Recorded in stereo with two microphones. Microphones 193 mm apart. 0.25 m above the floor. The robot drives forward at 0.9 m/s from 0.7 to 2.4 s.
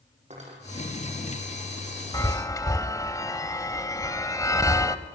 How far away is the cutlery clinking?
About 6 m.